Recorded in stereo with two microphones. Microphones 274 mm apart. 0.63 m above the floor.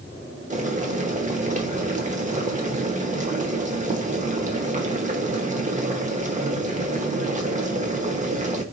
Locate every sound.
0.5 s boiling: 25° right (ahead or behind), 0.9 m